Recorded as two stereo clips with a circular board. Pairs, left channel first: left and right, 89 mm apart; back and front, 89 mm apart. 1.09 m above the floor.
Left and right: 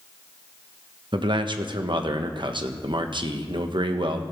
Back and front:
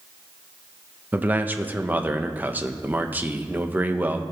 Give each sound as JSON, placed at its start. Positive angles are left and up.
{"t": 1.1, "sound": "a man speaking", "azimuth_deg": -70, "distance_m": 0.9}